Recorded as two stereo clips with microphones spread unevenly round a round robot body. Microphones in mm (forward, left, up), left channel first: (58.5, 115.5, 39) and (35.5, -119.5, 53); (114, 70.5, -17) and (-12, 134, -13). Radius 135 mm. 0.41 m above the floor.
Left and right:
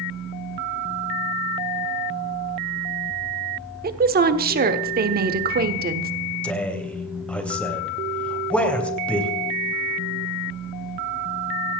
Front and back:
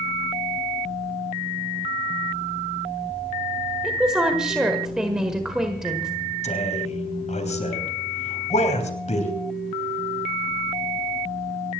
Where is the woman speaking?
120° right, 1.3 m.